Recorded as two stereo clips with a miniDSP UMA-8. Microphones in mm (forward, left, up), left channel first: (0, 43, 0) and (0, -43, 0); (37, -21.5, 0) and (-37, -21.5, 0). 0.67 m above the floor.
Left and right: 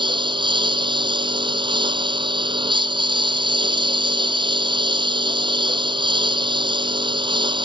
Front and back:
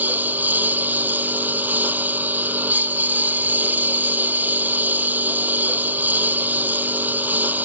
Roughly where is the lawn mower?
Behind right.